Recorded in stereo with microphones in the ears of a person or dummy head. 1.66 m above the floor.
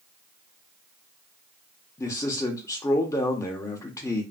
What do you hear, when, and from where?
2.0 s a man speaking: 20° left (ahead or behind), 0.7 m